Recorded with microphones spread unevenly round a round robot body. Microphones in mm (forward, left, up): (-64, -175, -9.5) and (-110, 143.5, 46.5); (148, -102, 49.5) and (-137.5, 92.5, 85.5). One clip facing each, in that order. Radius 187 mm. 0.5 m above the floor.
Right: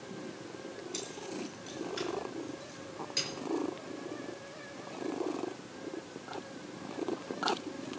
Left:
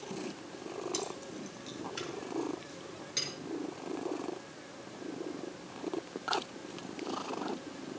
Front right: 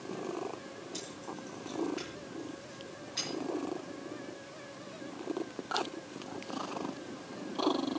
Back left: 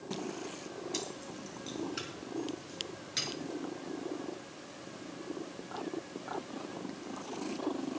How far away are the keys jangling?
About 3 m.